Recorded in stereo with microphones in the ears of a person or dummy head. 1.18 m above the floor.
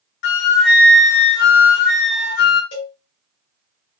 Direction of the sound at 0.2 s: 55° left (ahead or behind).